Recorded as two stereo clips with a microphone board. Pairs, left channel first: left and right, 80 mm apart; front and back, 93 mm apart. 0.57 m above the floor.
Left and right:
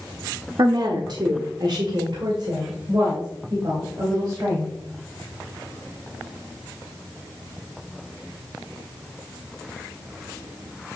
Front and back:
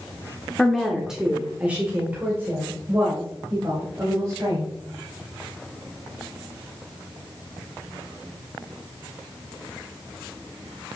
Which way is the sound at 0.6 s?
85° right.